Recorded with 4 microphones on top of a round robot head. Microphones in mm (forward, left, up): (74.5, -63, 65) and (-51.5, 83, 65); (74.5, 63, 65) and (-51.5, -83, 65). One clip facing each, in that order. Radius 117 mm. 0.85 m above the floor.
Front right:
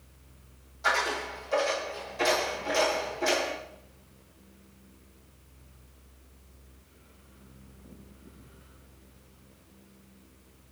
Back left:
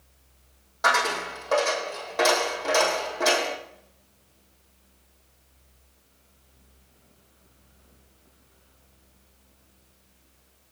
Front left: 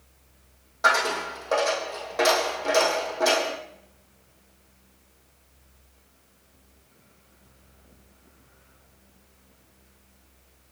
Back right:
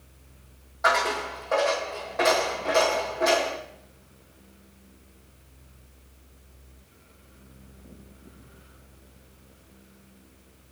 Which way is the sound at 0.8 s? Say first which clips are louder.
Back left 4 dB, back right 1 dB; 110° left.